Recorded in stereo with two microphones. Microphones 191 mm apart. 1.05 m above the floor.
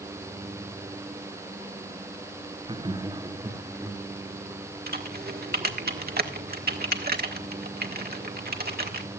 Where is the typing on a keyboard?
55° right (ahead or behind), 1.5 m.